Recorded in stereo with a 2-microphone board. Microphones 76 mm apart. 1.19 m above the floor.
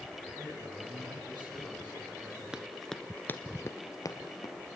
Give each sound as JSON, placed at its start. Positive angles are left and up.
{"t": 0.4, "sound": "a man speaking", "side_deg": -80, "distance_m": 9.5}
{"t": 2.5, "sound": "running footsteps", "side_deg": -10, "distance_m": 1.2}